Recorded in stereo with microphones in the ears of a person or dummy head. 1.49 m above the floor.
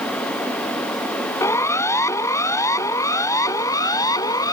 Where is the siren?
15° left (ahead or behind); by 4.5 s 20° left (ahead or behind).